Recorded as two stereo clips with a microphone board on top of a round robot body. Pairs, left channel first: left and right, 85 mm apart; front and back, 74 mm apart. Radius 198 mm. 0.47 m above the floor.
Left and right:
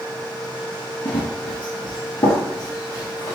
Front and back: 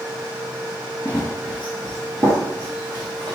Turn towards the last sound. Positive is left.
turn(degrees=145)